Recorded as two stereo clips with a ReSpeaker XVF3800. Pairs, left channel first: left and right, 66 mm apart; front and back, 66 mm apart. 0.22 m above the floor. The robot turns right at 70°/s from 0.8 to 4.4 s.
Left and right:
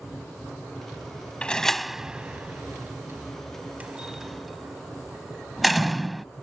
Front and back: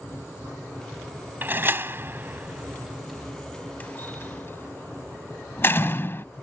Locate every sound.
1.4 s a door slam: 150° left; by 6.2 s straight ahead